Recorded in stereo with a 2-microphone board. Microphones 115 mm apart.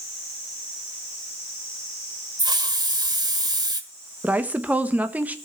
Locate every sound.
2.4 s a hiss: 40° right (ahead or behind), 1.4 m
4.2 s a woman speaking: 15° right (ahead or behind), 1.3 m